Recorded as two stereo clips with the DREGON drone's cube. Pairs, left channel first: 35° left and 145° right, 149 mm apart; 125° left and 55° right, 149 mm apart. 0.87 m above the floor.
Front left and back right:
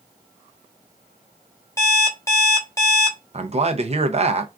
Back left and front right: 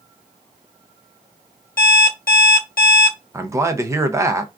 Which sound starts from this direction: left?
An alarm clock, at 1.8 s.